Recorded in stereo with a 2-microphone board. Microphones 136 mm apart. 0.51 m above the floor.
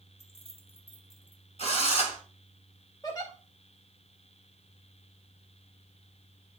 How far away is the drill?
About 2.5 m.